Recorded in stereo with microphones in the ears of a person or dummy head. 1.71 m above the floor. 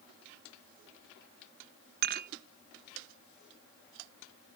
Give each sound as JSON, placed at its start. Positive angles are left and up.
{"t": 2.0, "sound": "dishes clattering", "side_deg": -45}